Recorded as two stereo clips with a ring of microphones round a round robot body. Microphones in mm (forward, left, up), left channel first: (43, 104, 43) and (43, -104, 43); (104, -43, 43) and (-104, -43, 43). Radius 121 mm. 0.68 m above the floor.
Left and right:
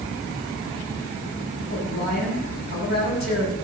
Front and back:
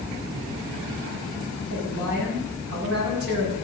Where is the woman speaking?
135° left, 6 m.